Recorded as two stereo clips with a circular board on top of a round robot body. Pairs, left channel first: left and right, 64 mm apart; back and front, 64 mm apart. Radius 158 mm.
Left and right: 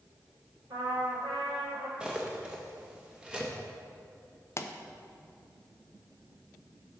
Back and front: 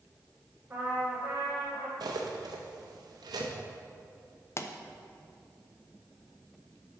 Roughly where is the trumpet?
Ahead right.